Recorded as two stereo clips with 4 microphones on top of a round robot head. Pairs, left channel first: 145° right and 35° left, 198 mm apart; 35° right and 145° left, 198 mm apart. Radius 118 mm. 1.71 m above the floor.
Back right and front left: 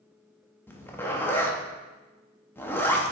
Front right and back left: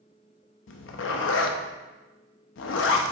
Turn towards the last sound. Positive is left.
turn(degrees=-65)